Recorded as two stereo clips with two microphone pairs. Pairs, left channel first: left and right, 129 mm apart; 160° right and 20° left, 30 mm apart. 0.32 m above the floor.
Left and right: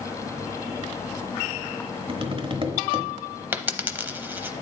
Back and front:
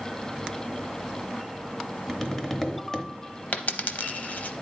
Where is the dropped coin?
165° right, 0.6 m.